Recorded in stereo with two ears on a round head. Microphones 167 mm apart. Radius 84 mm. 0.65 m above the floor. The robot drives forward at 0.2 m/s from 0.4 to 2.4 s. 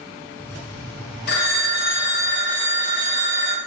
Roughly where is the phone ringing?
Left.